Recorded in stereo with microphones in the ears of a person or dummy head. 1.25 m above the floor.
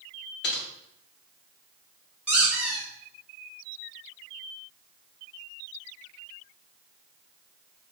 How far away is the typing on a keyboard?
About 0.7 m.